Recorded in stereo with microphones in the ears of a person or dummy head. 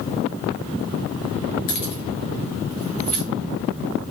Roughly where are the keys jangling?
Left.